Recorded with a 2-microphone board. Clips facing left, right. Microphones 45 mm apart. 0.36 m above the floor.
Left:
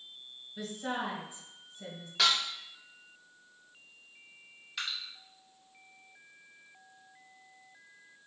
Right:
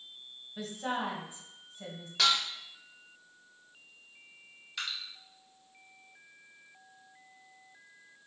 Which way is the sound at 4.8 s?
Centre (ahead or behind).